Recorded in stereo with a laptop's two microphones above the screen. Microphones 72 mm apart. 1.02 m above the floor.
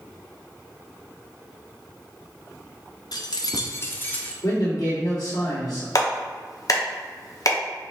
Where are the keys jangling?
65° left (ahead or behind), 0.5 m; by 4.3 s 20° left (ahead or behind), 1.0 m.